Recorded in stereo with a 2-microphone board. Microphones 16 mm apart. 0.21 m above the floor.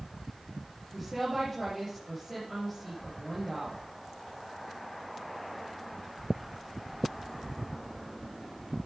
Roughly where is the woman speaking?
Centre.